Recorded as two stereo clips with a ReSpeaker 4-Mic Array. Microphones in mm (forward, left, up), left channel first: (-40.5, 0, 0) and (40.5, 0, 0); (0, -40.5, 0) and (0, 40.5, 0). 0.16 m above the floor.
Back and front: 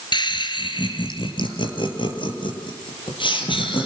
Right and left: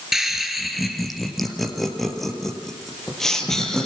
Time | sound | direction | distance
0.1 | laughter | 175° left | 3.5 m